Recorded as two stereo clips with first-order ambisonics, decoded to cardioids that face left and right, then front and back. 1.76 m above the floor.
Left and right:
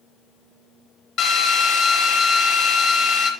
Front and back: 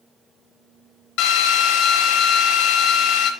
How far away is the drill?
About 1.1 m.